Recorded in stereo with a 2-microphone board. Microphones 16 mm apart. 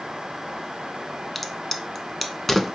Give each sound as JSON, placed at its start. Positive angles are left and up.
{"t": 1.4, "sound": "a crack", "side_deg": 10, "distance_m": 0.6}